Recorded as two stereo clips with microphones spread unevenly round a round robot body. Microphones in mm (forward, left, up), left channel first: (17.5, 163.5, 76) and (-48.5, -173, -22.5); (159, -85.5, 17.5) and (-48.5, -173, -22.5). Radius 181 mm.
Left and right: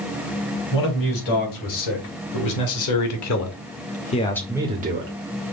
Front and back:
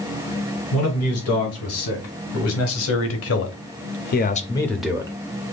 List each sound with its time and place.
0.7 s a man speaking: 45° left, 2.5 m; by 5.1 s 100° right, 0.8 m